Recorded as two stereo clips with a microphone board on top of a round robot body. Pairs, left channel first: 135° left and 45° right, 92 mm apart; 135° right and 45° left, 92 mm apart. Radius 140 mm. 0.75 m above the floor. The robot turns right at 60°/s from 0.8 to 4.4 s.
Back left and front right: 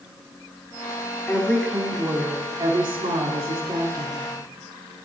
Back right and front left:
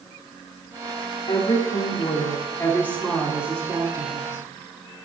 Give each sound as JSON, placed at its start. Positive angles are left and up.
{"t": 1.3, "sound": "a woman speaking", "azimuth_deg": -160, "distance_m": 3.0}